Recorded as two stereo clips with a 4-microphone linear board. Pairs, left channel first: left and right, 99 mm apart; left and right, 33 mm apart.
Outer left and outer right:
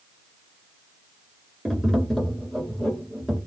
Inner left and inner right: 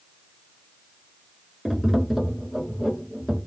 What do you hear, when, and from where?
1.6 s tapping: 5° left (ahead or behind), 1.1 m